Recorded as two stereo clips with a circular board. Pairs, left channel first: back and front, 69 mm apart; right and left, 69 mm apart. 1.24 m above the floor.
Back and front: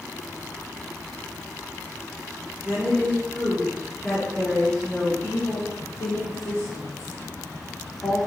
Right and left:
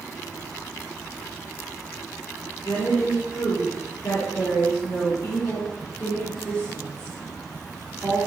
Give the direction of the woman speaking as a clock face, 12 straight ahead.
3 o'clock.